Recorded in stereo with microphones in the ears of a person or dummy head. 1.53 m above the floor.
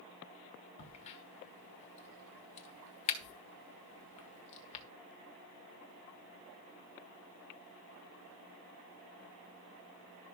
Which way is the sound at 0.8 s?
35° left (ahead or behind).